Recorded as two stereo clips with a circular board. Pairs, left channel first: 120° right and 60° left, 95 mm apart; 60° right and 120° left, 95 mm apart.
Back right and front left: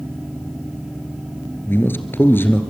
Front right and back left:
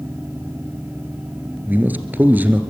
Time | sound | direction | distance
1.7 | a man speaking | 175° right | 2.0 m